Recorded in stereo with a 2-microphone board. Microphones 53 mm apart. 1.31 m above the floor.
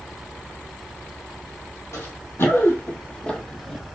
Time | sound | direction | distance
1.9 | running footsteps | 60° left (ahead or behind) | 2.5 m